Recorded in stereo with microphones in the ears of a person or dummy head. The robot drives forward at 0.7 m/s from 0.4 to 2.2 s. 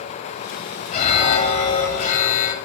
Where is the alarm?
35° left (ahead or behind), 6.5 m; by 2.5 s 40° left (ahead or behind), 5.5 m.